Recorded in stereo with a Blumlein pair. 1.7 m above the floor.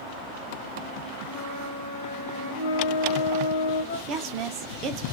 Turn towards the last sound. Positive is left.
turn(degrees=-30)